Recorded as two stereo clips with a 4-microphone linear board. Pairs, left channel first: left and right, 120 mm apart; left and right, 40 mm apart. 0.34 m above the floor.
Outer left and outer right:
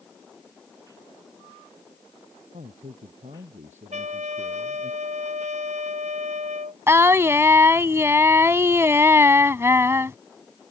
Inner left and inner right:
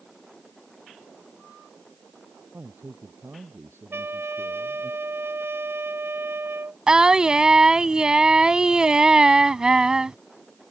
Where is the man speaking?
80° right.